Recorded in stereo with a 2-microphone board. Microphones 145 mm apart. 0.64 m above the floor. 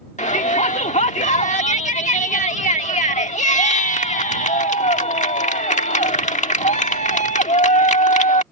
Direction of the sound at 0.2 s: 55° left (ahead or behind).